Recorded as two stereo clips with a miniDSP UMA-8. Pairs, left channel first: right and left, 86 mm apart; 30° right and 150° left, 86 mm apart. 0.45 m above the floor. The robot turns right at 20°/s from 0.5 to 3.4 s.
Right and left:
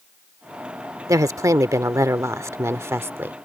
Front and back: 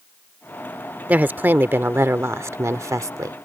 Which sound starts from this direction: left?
A woman speaking, at 1.1 s.